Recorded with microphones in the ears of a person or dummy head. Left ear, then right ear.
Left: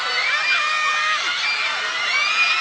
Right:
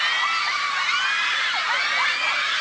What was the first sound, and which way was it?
Only background noise.